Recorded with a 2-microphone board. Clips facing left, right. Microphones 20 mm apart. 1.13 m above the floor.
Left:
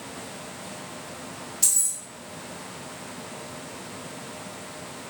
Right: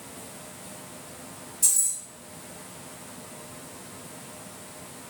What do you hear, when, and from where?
1.6 s keys jangling: 45° left (ahead or behind), 0.6 m